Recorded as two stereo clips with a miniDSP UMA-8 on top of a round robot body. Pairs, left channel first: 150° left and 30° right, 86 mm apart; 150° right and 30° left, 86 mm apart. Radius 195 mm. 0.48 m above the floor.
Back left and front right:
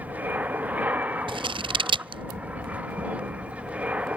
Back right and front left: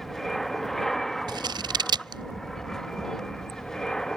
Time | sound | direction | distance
0.0 | an aircraft | 65° right | ?
1.3 | scissors | 10° right | ?